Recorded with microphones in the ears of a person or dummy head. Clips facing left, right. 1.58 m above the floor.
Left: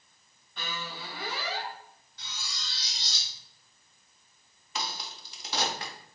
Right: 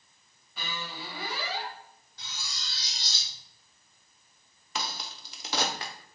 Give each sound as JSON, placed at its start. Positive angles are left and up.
{"t": 0.6, "sound": "a squeak", "side_deg": -5, "distance_m": 0.7}
{"t": 2.2, "sound": "cutlery clinking", "side_deg": -30, "distance_m": 1.2}
{"t": 4.8, "sound": "a crack", "side_deg": -50, "distance_m": 0.5}